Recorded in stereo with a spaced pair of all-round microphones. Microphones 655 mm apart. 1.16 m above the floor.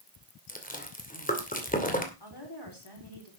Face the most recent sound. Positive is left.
turn(degrees=35)  # may be behind; listen again after turning